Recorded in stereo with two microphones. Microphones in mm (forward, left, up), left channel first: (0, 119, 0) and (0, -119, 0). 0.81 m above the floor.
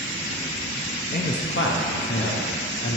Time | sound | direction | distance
1.1 | a man speaking | 35° left (ahead or behind) | 0.7 m